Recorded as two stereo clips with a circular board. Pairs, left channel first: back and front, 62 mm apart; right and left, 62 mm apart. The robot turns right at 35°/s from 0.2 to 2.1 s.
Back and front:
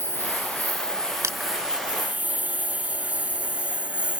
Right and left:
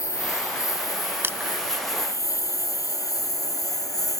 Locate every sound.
0.0 s a lawn mower: 130° right; by 4.2 s 70° right
1.2 s crushing: 35° left; by 1.5 s 45° left